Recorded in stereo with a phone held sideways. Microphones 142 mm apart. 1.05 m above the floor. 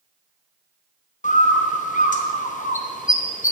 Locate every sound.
1.2 s a bird: 60° left (ahead or behind), 0.7 m